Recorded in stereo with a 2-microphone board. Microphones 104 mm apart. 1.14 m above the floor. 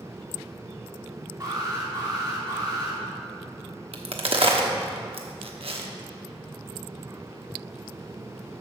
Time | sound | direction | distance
1.4 | an alarm | 40° right (ahead or behind) | 3.5 m
3.9 | a crack | 65° right (ahead or behind) | 1.0 m